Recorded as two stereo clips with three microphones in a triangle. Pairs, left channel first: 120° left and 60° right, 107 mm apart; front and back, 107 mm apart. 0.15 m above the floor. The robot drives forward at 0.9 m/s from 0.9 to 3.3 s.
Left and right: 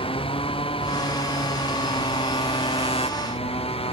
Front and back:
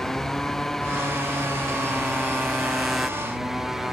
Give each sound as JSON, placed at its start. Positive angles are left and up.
{"t": 0.0, "sound": "a motorcycle", "azimuth_deg": 85}